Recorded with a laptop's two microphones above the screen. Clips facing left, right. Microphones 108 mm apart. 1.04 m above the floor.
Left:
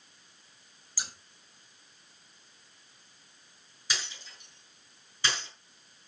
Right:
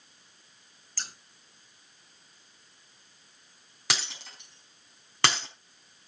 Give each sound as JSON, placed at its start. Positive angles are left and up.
{"t": 1.0, "sound": "scissors", "side_deg": 10, "distance_m": 1.4}
{"t": 3.9, "sound": "breaking glass", "side_deg": -75, "distance_m": 4.0}